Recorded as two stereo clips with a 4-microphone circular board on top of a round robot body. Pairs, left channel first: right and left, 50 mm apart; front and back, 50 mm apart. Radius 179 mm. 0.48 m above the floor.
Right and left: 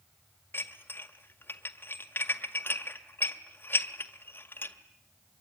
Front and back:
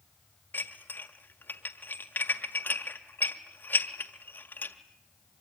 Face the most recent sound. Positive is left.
turn(degrees=-45)